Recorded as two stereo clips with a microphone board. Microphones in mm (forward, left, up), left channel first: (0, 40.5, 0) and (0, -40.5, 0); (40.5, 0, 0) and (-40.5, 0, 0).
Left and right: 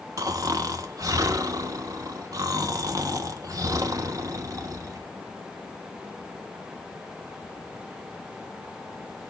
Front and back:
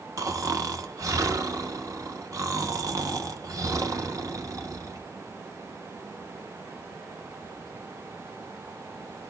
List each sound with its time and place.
0.2 s snoring: 135° right, 0.8 m